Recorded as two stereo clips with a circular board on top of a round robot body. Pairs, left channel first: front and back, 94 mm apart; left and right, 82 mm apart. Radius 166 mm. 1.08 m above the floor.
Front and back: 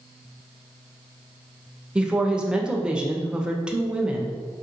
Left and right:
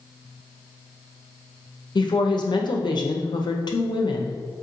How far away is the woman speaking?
About 1.1 m.